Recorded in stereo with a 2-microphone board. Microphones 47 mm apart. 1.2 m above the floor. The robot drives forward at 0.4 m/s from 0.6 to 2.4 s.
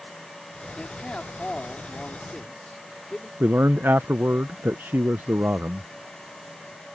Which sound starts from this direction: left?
A man speaking, at 0.8 s.